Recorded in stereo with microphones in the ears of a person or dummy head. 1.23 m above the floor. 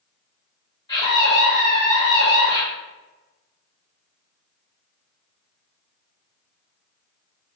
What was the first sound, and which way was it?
A scream, 25° left (ahead or behind).